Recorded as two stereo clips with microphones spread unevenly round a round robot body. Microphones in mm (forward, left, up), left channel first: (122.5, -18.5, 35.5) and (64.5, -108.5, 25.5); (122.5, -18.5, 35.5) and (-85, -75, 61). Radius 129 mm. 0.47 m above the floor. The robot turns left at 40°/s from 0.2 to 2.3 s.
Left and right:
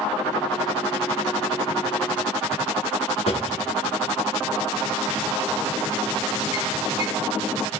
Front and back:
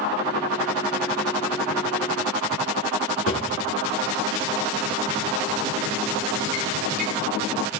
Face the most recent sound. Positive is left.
turn(degrees=55)